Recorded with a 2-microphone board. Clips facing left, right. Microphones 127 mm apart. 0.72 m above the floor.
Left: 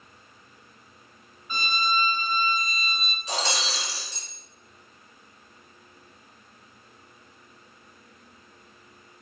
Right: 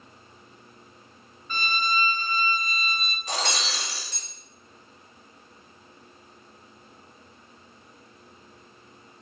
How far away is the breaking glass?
About 4 m.